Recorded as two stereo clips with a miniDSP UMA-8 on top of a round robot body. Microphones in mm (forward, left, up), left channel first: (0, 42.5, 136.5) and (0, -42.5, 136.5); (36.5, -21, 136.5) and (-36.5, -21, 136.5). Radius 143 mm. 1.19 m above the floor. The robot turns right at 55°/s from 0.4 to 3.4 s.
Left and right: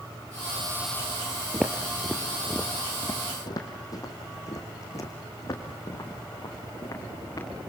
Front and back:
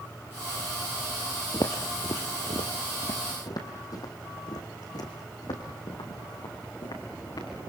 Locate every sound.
1.5 s footsteps: 5° right, 1.3 m; by 7.5 s 35° left, 5.5 m